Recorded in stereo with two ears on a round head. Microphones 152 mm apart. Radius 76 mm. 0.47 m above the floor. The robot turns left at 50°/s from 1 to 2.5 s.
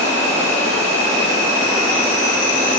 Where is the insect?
140° right, 1.2 m; by 2.8 s 145° left, 1.2 m.